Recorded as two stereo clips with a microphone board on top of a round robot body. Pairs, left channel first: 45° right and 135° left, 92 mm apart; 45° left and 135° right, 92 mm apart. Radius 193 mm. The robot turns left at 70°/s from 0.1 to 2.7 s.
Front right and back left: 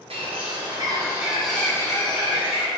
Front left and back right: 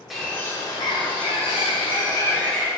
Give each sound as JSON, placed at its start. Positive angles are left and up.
{"t": 0.1, "sound": "a bird", "azimuth_deg": 135, "distance_m": 1.6}